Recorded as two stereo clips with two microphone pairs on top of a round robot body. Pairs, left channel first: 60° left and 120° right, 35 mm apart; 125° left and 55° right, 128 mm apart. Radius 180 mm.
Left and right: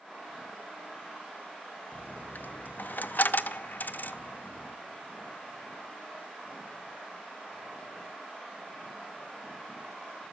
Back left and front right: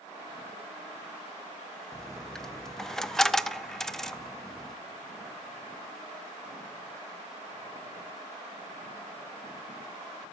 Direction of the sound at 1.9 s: 40° left.